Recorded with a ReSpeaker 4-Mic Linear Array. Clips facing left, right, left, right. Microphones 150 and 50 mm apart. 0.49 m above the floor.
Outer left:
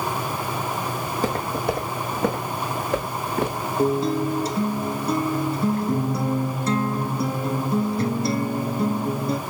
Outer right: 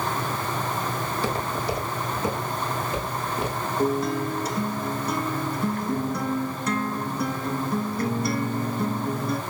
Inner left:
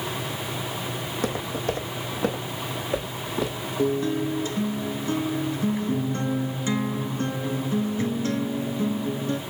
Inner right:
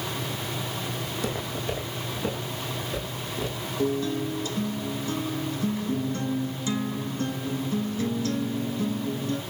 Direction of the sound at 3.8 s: 35° left (ahead or behind).